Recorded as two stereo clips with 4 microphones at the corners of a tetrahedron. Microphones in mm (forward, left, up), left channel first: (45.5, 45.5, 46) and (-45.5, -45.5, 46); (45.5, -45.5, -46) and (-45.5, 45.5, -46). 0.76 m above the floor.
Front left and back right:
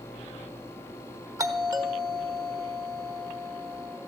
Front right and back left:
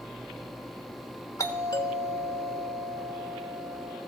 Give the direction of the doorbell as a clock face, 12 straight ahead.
3 o'clock.